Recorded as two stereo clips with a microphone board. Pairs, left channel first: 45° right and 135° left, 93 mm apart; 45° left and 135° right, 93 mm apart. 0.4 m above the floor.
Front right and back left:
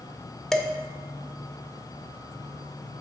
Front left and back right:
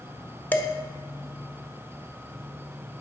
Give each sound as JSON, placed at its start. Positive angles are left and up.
{"t": 0.5, "sound": "dishes clattering", "azimuth_deg": 30, "distance_m": 0.6}